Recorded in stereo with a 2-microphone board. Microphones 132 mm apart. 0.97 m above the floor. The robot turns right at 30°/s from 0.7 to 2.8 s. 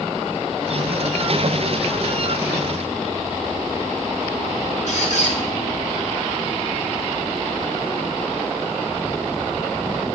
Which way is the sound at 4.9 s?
65° left (ahead or behind).